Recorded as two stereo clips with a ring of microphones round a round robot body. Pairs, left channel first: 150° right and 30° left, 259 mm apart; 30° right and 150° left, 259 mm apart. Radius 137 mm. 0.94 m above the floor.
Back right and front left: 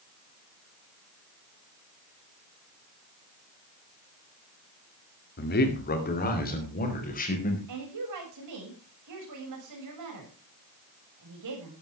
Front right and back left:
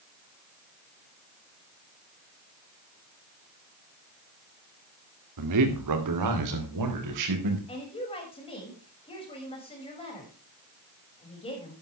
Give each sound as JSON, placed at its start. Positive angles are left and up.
{"t": 5.4, "sound": "a man speaking", "azimuth_deg": 155, "distance_m": 2.0}
{"t": 7.7, "sound": "a woman speaking", "azimuth_deg": 40, "distance_m": 6.0}